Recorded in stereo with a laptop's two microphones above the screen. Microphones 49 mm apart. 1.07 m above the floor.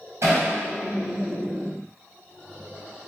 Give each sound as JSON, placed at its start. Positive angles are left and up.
{"t": 0.2, "sound": "hammering", "side_deg": -60, "distance_m": 5.0}